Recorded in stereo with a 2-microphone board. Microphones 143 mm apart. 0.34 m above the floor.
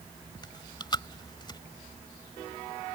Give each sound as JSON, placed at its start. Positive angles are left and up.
{"t": 0.4, "sound": "chewing", "side_deg": 30}